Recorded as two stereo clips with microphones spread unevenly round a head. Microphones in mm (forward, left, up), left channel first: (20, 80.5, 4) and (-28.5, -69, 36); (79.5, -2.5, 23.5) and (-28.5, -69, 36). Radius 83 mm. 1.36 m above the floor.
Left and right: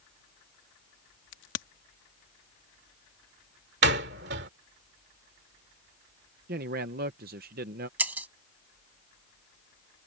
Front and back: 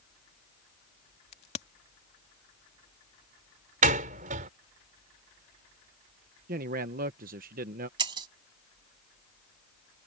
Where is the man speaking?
140° right.